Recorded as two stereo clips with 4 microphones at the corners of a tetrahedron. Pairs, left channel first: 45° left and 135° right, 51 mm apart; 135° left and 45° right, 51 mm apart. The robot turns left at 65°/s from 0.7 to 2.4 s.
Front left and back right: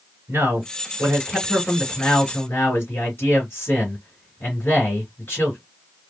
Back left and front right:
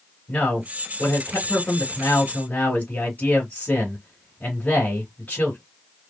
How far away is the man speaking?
About 3 m.